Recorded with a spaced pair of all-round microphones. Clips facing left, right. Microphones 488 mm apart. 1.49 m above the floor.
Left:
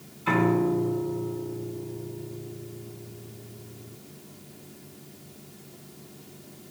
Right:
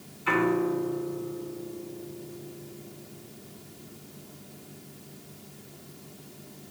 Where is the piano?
60° left (ahead or behind), 2.5 m.